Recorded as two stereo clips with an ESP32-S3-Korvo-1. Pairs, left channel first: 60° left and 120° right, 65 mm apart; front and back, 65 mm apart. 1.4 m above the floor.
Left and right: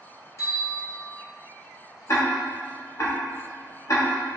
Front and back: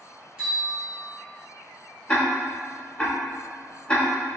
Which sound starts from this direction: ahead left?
Ticking, at 2.1 s.